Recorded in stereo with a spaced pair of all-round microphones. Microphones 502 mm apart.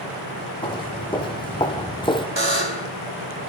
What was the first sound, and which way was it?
Footsteps, 10° left (ahead or behind).